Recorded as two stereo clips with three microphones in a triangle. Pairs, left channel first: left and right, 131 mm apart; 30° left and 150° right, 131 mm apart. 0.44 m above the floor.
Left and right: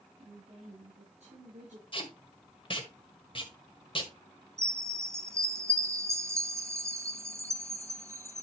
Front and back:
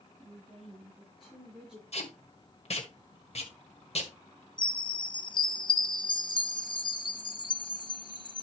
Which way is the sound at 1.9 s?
50° left.